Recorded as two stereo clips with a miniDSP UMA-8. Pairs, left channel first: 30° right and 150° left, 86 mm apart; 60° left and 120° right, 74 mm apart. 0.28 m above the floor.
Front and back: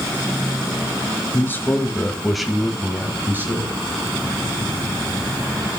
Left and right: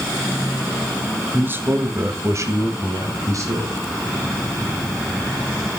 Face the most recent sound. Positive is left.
turn(degrees=-155)